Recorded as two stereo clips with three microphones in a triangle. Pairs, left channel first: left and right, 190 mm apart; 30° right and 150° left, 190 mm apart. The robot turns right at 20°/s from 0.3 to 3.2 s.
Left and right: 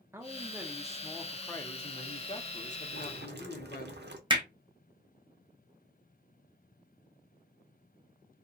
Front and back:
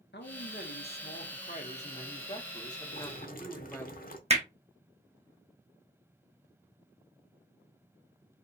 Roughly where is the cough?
No cough in this recording.